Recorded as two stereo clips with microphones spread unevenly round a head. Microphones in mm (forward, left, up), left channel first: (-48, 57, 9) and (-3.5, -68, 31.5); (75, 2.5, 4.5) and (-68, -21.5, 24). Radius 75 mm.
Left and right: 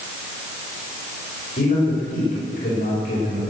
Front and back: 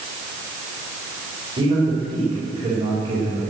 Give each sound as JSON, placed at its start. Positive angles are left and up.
{"t": 1.6, "sound": "a man speaking", "azimuth_deg": 130, "distance_m": 5.0}